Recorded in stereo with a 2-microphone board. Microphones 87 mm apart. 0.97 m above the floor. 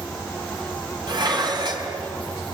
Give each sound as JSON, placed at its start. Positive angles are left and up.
{"t": 1.1, "sound": "dishes clattering", "side_deg": -55, "distance_m": 4.5}